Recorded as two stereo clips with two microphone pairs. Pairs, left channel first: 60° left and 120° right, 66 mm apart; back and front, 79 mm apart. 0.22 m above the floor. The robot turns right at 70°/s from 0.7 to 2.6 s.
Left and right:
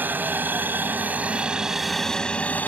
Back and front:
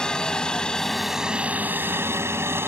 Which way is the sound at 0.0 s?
110° right.